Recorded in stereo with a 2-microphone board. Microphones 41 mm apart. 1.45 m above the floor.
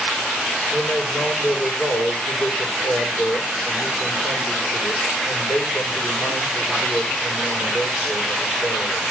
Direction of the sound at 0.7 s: 55° left (ahead or behind).